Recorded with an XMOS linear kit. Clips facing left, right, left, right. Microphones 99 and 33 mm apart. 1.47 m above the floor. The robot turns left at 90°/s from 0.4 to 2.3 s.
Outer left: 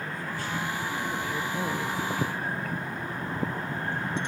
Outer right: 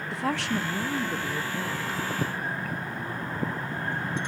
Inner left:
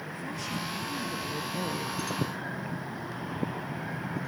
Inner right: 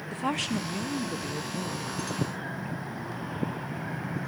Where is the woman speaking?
90° right, 1.2 m; by 2.0 s 125° left, 1.2 m.